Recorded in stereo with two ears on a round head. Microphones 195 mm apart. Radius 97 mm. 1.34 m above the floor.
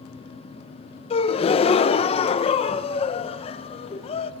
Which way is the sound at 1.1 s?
25° left (ahead or behind).